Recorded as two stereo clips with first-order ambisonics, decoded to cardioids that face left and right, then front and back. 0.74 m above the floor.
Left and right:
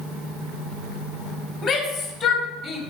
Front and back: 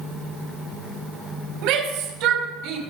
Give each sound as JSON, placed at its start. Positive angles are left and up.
{"t": 1.6, "sound": "a shout", "azimuth_deg": 170, "distance_m": 3.0}